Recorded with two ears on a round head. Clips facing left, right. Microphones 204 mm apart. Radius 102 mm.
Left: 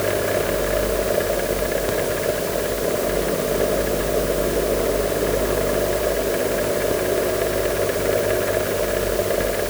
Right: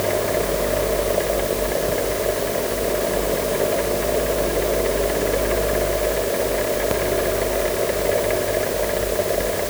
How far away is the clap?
I don't hear a clap.